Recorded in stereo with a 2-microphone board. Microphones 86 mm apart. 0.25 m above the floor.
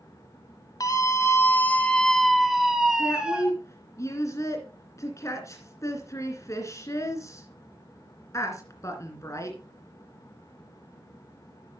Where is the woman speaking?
35° left (ahead or behind), 2.5 m.